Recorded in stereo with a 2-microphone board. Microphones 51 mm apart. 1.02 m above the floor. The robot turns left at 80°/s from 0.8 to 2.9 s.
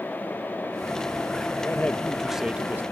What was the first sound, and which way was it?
A man speaking, 50° left.